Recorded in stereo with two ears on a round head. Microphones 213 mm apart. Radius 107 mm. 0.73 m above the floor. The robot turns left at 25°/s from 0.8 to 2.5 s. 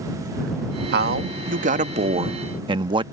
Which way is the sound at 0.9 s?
110° right.